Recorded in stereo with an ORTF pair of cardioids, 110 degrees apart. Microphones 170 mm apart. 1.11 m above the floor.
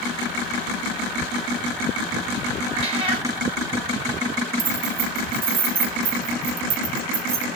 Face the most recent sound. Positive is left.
turn(degrees=-55)